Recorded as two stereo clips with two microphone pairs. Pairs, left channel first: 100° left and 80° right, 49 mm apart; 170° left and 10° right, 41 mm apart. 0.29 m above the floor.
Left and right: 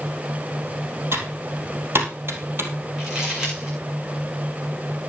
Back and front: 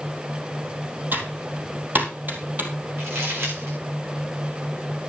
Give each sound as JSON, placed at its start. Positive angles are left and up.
{"t": 1.1, "sound": "typing on a keyboard", "azimuth_deg": -45, "distance_m": 2.5}
{"t": 3.0, "sound": "crumpling", "azimuth_deg": -5, "distance_m": 8.0}